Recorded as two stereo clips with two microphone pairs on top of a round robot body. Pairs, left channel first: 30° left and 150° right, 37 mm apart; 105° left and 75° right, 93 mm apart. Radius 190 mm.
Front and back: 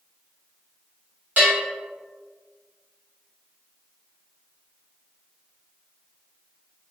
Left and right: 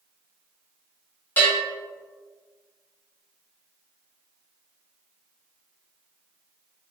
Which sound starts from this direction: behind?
A bell, at 1.4 s.